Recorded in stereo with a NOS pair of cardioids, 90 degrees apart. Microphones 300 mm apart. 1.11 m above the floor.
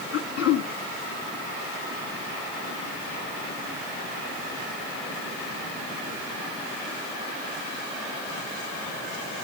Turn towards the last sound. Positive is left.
turn(degrees=55)